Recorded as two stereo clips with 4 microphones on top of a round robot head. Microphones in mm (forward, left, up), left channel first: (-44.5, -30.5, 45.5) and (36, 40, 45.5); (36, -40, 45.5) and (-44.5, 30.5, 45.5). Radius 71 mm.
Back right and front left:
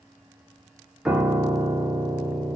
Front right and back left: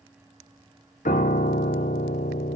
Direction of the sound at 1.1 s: 45° right.